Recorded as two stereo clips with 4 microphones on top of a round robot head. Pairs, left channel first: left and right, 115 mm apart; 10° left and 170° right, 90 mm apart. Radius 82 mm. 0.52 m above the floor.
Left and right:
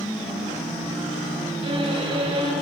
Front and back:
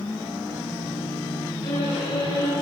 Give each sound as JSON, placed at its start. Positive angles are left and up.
{"t": 1.6, "sound": "a violin", "azimuth_deg": -50, "distance_m": 7.5}